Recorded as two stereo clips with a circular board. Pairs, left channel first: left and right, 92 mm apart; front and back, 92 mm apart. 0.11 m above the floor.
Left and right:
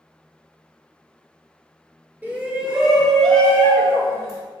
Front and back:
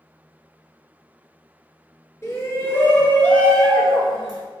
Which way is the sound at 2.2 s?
30° right.